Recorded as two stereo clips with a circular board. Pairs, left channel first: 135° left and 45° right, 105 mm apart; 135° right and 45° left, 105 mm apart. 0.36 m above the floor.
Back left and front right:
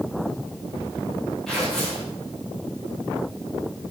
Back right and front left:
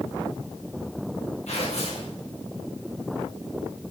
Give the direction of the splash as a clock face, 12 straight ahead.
I don't hear a splash.